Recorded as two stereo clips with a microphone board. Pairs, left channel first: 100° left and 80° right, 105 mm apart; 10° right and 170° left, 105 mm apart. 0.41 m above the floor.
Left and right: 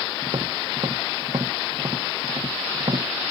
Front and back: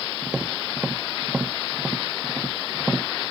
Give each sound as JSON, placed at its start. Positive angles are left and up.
{"t": 0.2, "sound": "tapping", "azimuth_deg": -110}